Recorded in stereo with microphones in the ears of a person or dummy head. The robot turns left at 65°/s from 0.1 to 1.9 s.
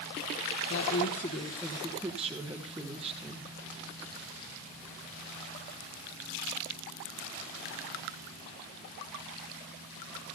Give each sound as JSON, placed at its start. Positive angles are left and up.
{"t": 0.7, "sound": "a woman speaking", "azimuth_deg": 70, "distance_m": 1.8}